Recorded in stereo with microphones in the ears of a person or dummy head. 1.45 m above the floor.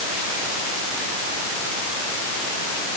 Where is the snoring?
No snoring in this recording.